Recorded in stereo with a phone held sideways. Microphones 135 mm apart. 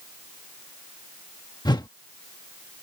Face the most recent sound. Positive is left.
turn(degrees=30)  # may be behind; listen again after turning